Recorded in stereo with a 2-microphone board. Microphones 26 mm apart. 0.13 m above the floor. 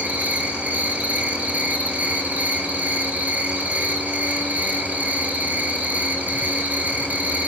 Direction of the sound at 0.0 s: 80° right.